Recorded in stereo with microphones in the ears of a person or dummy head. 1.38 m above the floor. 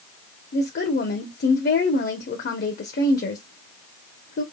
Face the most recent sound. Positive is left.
turn(degrees=55)  # may be behind; listen again after turning